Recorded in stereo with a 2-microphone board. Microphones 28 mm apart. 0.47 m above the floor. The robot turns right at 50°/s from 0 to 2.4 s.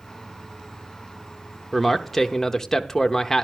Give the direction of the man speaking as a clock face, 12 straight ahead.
12 o'clock.